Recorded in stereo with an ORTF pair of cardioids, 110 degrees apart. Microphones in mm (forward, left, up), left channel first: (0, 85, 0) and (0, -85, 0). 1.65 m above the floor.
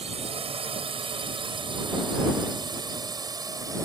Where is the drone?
35° right; by 3.9 s 20° right.